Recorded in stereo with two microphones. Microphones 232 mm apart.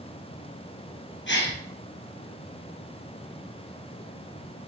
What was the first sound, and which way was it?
A gasp, 50° left (ahead or behind).